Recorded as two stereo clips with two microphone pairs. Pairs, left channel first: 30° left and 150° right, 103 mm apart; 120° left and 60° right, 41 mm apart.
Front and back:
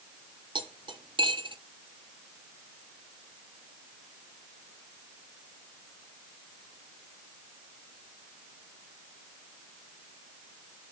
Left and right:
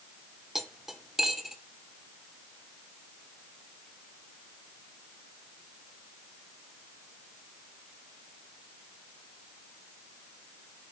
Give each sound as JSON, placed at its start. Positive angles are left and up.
{"t": 0.6, "sound": "cutlery clinking", "azimuth_deg": -140, "distance_m": 0.9}